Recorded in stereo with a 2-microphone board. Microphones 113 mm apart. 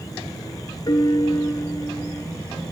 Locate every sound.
0.9 s a piano: 45° left (ahead or behind), 0.5 m